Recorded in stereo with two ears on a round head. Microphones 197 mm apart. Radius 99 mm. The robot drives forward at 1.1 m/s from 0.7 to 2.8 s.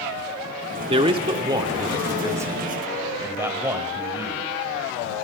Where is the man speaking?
30° right (ahead or behind), 1.4 m; by 4.5 s 15° right (ahead or behind), 3 m.